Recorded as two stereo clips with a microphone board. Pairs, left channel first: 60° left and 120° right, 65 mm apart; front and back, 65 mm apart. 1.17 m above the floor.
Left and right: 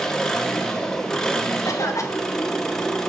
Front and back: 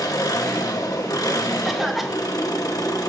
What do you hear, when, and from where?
0.0 s an engine running: 25° right, 1.4 m
1.6 s a cough: 90° left, 1.2 m